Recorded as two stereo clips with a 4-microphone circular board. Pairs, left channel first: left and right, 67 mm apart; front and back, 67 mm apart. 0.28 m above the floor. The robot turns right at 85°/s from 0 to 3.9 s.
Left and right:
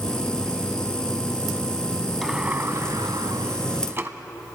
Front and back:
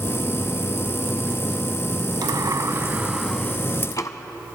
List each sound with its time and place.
2.2 s a sliding door: straight behind, 0.6 m; by 4.1 s 35° right, 0.6 m